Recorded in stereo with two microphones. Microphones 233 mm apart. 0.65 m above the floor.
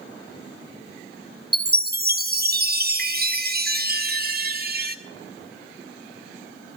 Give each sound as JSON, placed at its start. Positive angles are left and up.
{"t": 1.5, "sound": "a chime", "side_deg": -40, "distance_m": 0.8}